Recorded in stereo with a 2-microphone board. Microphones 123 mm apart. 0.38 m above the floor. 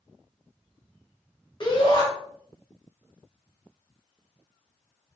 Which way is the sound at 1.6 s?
40° left (ahead or behind).